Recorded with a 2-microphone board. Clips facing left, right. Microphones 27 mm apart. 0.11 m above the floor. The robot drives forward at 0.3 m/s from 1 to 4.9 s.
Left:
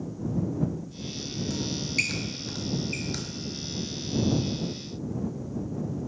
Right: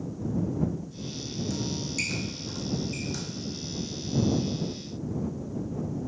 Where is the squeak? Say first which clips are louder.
Left 5 dB; 35° left (ahead or behind), 0.6 m; by 3.2 s 45° left (ahead or behind), 0.5 m.